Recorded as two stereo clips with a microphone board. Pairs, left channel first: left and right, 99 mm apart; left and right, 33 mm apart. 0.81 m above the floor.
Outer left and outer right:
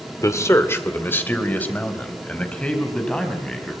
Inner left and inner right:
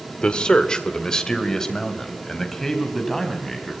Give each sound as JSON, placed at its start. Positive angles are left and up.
{"t": 0.2, "sound": "a man speaking", "side_deg": 35, "distance_m": 2.0}